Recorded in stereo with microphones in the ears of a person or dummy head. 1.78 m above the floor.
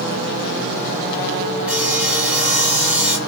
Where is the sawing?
10° right (ahead or behind), 1.2 m.